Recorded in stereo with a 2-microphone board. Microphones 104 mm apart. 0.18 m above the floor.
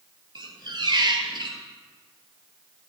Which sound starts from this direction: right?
A squeak, at 0.3 s.